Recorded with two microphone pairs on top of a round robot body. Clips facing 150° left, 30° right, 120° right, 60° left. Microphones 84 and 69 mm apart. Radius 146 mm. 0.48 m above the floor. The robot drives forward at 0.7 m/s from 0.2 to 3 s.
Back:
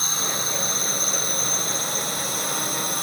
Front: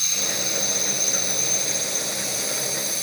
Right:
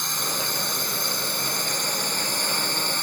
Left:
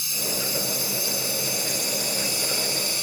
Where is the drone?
160° right; by 3.0 s 165° right.